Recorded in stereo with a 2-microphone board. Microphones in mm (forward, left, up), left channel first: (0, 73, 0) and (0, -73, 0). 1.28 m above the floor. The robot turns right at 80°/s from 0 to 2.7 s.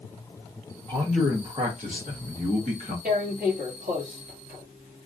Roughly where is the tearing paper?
Right.